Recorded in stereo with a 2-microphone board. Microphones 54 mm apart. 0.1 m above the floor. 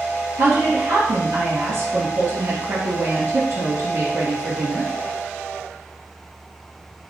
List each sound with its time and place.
0.4 s a woman speaking: 50° right (ahead or behind), 1.9 m